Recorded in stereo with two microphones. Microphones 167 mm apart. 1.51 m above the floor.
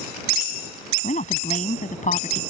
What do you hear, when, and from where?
1.0 s a woman speaking: 50° left (ahead or behind)